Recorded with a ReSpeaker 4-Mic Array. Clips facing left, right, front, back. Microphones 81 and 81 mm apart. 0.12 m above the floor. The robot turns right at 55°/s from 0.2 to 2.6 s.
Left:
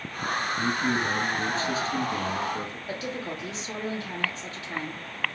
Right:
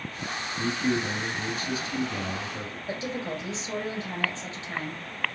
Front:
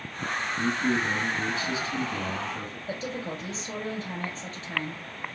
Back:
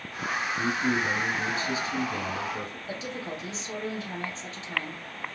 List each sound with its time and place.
0.6 s a man speaking: 140° left, 1.2 m; by 2.8 s 110° right, 1.2 m
2.9 s a woman speaking: 30° right, 1.9 m